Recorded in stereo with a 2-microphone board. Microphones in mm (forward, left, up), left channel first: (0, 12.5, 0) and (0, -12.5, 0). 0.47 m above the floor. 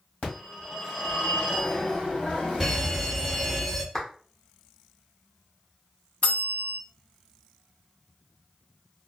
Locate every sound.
0.2 s a phone ringing: 65° left (ahead or behind), 1.7 m
2.6 s a fire alarm: 5° left (ahead or behind), 2.0 m
3.9 s a clap: 25° left (ahead or behind), 1.1 m
6.2 s a bell: 70° left (ahead or behind), 1.3 m